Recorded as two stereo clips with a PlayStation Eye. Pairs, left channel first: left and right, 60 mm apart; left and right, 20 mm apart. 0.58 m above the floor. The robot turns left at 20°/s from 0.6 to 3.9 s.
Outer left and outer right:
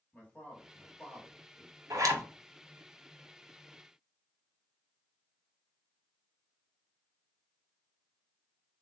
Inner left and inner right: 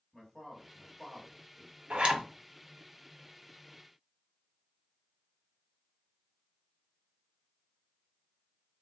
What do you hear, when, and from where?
0.1 s a man speaking: 25° left (ahead or behind), 1.1 m
1.9 s a zipper: 70° right (ahead or behind), 0.7 m